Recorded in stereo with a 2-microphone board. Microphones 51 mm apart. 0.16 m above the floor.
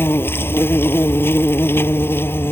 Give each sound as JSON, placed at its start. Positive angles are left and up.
{"t": 0.0, "sound": "an insect", "side_deg": 45}